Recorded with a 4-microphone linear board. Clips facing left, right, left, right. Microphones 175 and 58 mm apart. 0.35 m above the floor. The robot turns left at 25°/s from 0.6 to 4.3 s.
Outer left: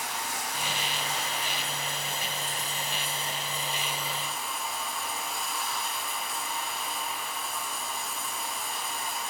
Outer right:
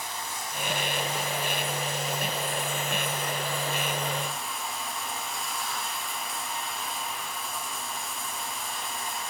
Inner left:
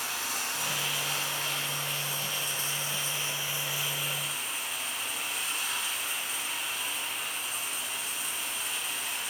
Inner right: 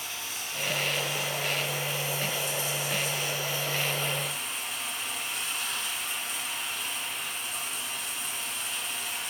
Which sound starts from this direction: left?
Running water, at 0.0 s.